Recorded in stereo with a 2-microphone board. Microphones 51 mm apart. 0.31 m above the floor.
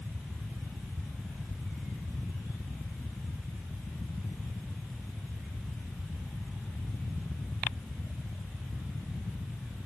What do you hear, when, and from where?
Only background noise.